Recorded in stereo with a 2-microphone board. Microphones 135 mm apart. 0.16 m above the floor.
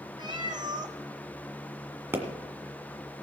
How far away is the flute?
No flute in this recording.